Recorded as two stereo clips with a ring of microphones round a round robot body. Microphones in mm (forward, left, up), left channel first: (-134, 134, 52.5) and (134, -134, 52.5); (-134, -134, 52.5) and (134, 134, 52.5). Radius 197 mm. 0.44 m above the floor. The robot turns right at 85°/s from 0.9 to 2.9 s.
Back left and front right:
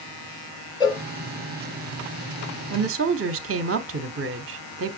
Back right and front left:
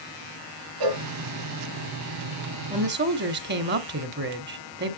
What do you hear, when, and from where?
0.8 s a cowbell: 60° left, 1.9 m; by 1.0 s 65° left, 1.9 m
2.7 s a woman speaking: 20° right, 1.2 m; by 5.0 s 5° right, 1.2 m